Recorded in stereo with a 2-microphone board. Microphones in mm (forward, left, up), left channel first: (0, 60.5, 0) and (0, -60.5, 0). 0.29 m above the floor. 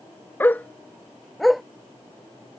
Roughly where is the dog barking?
Centre.